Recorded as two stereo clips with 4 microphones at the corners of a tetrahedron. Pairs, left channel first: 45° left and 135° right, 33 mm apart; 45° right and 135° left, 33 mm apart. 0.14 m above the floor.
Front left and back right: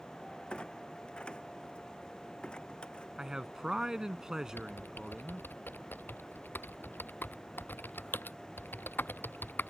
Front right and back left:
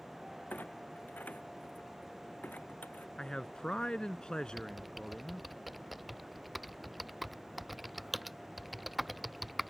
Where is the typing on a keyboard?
45° left.